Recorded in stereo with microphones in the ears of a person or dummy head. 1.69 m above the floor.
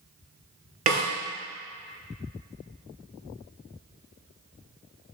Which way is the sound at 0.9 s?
35° right (ahead or behind).